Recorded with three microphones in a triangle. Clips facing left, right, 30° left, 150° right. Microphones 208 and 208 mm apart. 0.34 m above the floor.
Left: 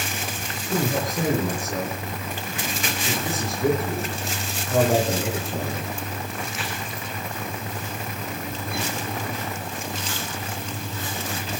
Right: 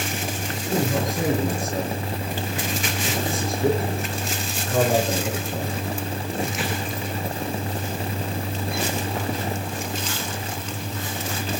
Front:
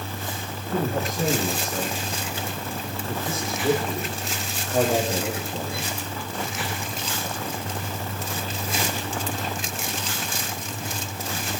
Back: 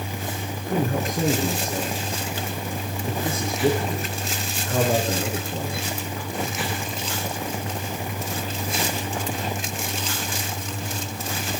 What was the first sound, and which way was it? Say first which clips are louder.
A man speaking: right 1 dB, back 1 dB; straight behind.